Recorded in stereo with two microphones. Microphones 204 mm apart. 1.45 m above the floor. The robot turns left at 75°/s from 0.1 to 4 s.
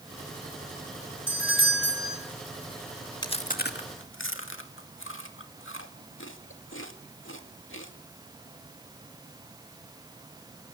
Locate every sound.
1.3 s a doorbell: 110° left, 4.5 m; by 2.2 s 40° left, 4.5 m
3.2 s chewing: 20° left (ahead or behind), 2 m; by 7.9 s 75° left (ahead or behind), 2 m